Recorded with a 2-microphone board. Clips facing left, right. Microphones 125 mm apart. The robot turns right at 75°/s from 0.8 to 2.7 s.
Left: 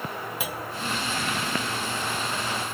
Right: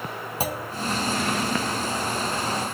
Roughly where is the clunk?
Right.